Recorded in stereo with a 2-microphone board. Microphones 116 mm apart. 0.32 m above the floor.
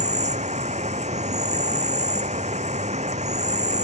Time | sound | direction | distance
0.0 | an insect | 70° right (ahead or behind) | ?